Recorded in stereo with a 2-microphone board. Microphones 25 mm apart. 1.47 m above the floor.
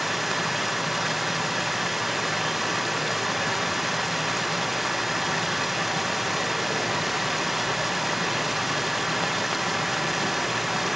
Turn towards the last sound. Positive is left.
turn(degrees=-5)  # may be behind; listen again after turning